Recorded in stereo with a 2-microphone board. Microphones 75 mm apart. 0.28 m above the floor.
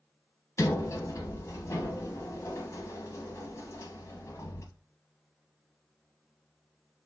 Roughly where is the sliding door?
Left.